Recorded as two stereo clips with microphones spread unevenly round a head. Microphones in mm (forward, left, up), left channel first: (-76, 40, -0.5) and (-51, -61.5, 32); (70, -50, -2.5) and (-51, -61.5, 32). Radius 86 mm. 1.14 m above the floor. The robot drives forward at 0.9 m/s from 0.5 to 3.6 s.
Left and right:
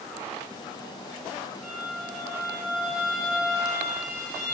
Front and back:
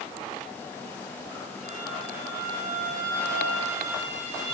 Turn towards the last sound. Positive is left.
turn(degrees=-170)